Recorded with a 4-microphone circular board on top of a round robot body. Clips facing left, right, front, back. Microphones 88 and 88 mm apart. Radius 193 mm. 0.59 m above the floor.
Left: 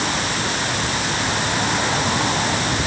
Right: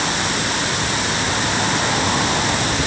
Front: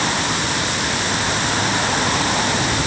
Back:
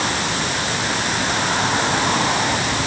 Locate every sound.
Only background noise.